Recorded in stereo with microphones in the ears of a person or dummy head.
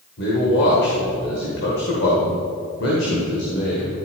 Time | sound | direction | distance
0.2 | a man speaking | 65° left (ahead or behind) | 1.8 m